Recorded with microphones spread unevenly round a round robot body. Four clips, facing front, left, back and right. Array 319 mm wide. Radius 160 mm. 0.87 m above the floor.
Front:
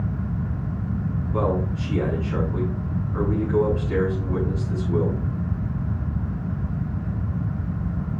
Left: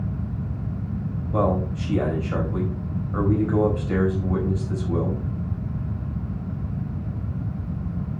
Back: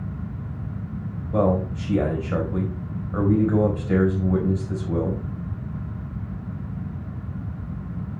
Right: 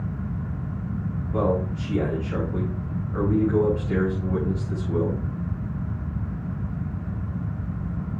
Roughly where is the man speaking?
Behind.